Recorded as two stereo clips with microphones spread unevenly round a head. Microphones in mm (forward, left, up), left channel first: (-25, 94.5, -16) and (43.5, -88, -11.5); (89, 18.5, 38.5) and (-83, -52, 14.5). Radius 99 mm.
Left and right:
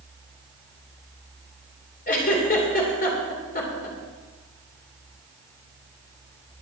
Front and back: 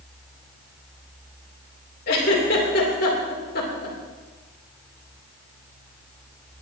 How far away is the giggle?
About 3 m.